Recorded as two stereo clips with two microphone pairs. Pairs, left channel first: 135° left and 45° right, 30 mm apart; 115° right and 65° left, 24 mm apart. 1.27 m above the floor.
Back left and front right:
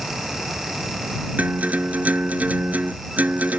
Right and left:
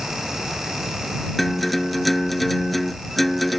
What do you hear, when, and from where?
1.4 s a guitar: 30° right